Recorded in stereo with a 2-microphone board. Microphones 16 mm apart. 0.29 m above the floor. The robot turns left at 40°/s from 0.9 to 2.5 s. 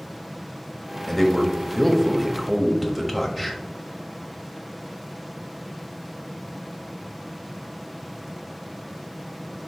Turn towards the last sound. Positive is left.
turn(degrees=-30)